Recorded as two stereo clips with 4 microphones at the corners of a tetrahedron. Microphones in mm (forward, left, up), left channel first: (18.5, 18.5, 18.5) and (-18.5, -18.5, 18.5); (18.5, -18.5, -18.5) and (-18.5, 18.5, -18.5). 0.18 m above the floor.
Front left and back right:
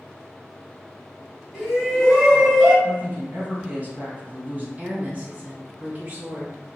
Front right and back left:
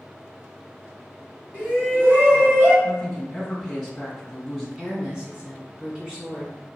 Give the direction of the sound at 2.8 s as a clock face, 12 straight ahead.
5 o'clock.